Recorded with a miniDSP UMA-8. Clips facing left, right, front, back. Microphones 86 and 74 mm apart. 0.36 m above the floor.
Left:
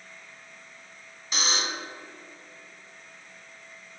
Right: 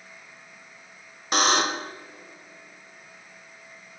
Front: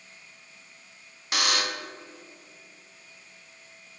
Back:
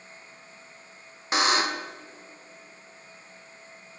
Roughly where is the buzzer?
Behind right.